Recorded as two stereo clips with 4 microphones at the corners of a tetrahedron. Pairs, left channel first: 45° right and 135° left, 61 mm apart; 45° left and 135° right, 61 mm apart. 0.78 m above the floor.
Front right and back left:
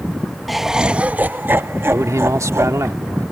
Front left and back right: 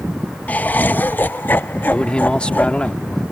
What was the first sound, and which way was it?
Laughter, 45° left.